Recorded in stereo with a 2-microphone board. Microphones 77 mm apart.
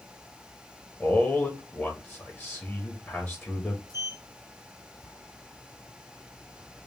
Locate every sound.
1.0 s a man speaking: 10° left (ahead or behind), 1.2 m
3.9 s a sliding door: 50° left (ahead or behind), 2 m